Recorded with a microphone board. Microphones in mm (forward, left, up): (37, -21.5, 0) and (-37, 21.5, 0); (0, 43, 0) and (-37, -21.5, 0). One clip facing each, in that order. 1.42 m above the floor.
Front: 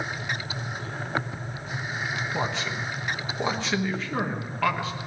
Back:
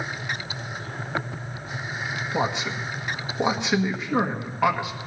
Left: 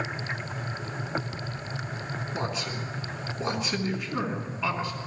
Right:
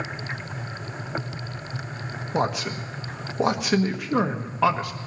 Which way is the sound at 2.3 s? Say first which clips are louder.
Back 6 dB, right 9 dB; 140° right.